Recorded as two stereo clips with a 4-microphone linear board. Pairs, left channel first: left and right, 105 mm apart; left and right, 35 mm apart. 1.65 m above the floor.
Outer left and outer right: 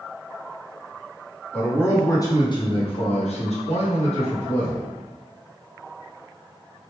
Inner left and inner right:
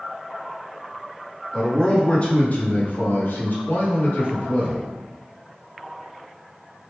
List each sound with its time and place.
1.5 s a man speaking: 15° left (ahead or behind), 1.1 m; by 4.9 s 60° left (ahead or behind), 1.4 m